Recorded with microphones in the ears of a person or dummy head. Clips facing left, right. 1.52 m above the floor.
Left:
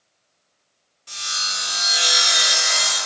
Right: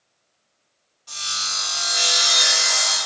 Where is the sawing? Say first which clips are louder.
Left 1 dB; 35° left (ahead or behind), 1.6 m.